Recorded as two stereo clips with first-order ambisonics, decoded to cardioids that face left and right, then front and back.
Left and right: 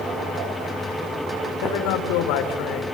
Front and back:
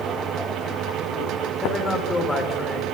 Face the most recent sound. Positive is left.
turn(degrees=80)